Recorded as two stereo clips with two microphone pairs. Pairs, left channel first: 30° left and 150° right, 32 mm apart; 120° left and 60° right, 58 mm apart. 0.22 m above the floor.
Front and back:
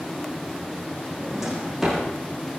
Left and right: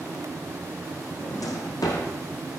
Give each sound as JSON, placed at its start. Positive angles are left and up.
{"t": 1.2, "sound": "a drawer", "azimuth_deg": 125, "distance_m": 6.0}